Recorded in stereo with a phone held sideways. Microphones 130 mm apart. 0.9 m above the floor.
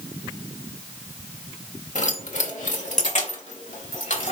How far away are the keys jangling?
About 1.7 m.